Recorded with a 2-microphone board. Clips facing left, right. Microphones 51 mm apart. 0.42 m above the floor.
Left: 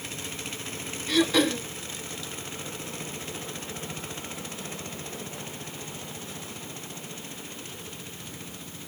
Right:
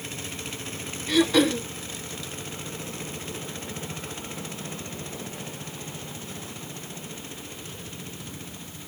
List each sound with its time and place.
1.1 s throat clearing: 5° right (ahead or behind), 0.6 m